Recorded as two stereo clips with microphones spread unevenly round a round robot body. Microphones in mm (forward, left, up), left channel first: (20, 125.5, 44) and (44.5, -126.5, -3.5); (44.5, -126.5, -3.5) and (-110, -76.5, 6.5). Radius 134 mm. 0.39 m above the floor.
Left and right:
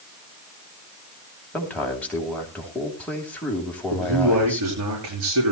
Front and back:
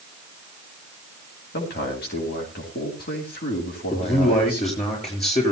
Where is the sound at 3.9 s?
65° right, 6.5 m.